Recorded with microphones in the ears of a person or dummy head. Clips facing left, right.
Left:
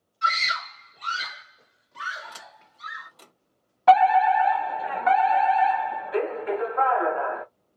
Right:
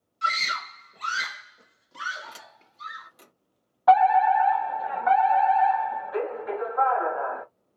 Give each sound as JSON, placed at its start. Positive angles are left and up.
{"t": 0.2, "sound": "a scream", "side_deg": -40, "distance_m": 0.9}
{"t": 2.3, "sound": "a sliding door", "side_deg": -15, "distance_m": 0.9}
{"t": 3.9, "sound": "a fire alarm", "side_deg": 25, "distance_m": 1.5}